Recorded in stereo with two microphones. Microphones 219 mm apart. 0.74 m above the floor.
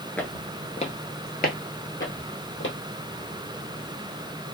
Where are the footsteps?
5° left (ahead or behind), 0.7 m; by 2.8 s 65° left (ahead or behind), 1.5 m.